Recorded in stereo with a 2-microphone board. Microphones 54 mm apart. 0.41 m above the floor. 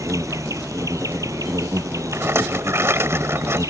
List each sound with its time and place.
0.0 s an insect: 85° right
2.1 s a rattle: 55° right (ahead or behind)